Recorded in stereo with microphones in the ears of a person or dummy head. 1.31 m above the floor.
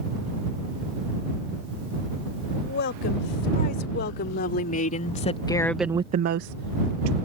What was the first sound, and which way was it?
A woman speaking, 60° left (ahead or behind).